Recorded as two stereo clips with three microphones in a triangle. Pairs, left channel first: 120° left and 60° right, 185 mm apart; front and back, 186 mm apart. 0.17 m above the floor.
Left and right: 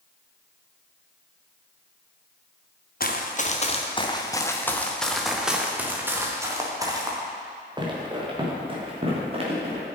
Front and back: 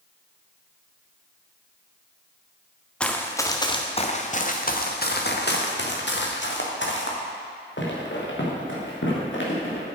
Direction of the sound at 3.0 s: 85° left.